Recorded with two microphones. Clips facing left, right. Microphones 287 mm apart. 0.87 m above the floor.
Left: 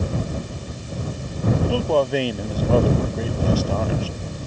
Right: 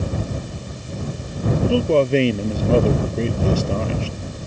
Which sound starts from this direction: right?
A man speaking, at 1.6 s.